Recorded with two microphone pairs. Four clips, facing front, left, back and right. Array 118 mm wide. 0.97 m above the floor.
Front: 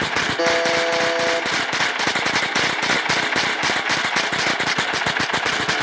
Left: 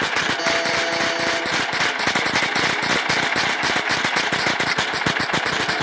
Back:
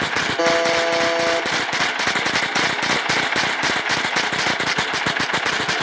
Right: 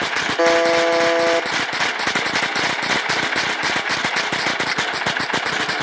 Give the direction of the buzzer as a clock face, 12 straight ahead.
4 o'clock.